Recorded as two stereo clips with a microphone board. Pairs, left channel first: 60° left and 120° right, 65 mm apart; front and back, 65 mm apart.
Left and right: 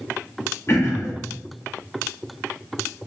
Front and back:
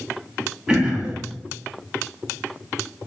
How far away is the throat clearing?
About 1.1 m.